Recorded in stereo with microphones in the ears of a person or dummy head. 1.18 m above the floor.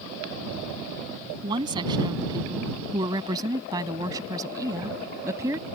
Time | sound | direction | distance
1.4 | a woman speaking | 25° right (ahead or behind) | ?